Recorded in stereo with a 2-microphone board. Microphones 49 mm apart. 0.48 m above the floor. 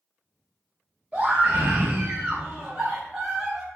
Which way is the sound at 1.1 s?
20° right (ahead or behind).